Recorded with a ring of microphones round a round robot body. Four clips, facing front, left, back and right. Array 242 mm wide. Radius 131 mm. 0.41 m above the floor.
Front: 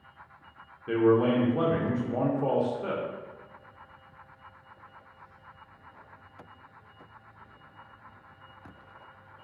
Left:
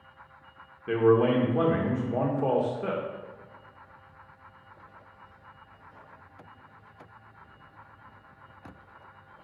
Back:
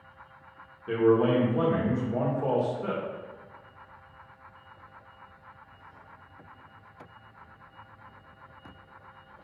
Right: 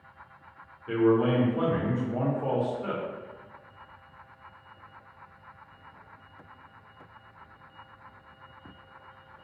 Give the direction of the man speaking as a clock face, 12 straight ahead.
10 o'clock.